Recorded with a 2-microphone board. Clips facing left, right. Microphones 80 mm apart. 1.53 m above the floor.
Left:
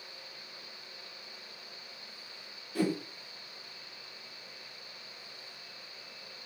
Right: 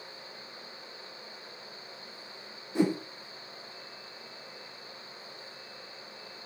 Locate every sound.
2.8 s a whoosh: 20° right (ahead or behind), 0.6 m